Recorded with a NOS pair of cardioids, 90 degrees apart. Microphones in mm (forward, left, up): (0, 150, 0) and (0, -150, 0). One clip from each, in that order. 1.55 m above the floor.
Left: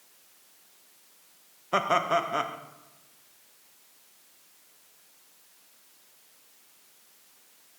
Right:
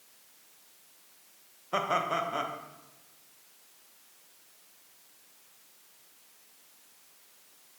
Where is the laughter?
20° left, 0.7 m.